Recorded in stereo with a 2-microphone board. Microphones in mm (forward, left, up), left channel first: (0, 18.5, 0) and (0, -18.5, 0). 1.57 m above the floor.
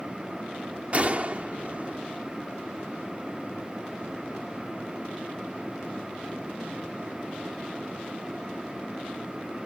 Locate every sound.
0.9 s a gunshot: 40° right (ahead or behind)